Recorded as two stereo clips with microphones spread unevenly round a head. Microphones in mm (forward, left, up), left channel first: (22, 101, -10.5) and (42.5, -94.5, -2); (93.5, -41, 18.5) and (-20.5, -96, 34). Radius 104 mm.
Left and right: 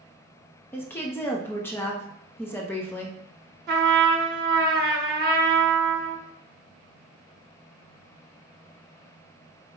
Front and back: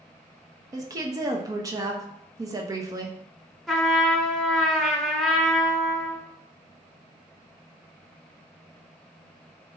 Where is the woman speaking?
160° left, 0.5 m.